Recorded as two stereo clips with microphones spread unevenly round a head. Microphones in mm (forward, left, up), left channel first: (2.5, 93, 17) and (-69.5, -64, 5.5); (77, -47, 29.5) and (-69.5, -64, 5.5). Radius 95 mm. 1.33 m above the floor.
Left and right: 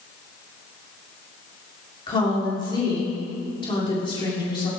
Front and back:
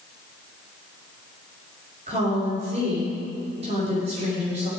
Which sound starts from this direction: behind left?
A woman speaking, at 2.1 s.